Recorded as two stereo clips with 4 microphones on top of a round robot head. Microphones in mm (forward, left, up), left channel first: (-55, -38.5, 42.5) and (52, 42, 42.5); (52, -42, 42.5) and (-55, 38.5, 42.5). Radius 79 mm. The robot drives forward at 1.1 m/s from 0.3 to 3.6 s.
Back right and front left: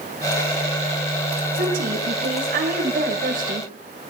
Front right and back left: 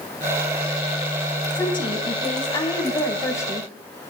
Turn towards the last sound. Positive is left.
turn(degrees=30)